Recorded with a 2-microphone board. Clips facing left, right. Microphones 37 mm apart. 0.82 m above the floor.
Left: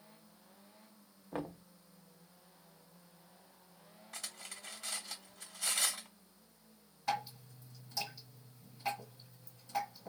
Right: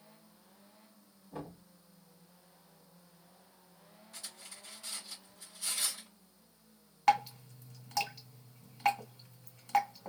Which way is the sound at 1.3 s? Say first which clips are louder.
Left 4 dB; 65° left (ahead or behind).